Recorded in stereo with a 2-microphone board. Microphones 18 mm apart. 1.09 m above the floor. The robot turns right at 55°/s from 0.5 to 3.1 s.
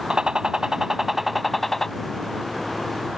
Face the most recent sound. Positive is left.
turn(degrees=90)